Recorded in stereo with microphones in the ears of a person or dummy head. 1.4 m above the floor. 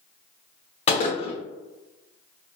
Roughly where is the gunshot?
Left.